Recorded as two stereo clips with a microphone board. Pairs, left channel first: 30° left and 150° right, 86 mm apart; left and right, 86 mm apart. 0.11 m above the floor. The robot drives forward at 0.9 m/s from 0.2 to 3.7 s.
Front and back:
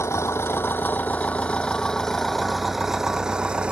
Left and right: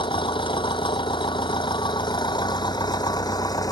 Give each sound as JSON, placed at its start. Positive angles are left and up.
{"t": 0.0, "sound": "an engine running", "azimuth_deg": 85}